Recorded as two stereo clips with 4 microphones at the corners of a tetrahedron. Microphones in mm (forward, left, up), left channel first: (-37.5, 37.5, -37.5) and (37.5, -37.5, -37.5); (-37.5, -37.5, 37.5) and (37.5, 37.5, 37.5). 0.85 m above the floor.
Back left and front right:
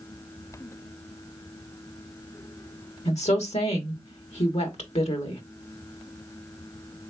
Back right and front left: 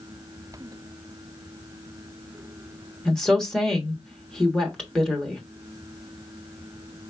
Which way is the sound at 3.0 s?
140° left.